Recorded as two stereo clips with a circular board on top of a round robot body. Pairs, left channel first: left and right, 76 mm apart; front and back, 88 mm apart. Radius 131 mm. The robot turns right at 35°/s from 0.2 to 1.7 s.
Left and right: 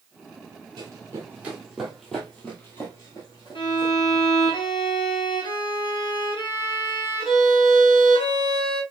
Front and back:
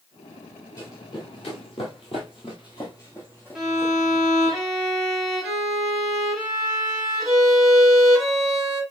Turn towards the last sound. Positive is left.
turn(degrees=95)